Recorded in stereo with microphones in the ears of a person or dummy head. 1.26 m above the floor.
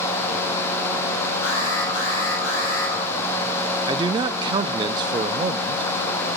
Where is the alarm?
80° left, 6.5 m.